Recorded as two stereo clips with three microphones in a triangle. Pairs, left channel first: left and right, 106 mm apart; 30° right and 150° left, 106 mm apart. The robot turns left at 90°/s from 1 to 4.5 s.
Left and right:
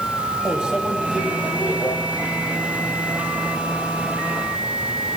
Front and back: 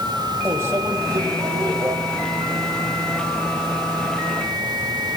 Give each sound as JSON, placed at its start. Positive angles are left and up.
{"t": 0.5, "sound": "a microwave", "azimuth_deg": -165, "distance_m": 1.2}